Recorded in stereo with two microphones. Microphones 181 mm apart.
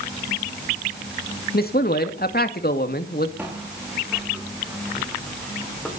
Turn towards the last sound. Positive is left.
turn(degrees=5)  # may be behind; listen again after turning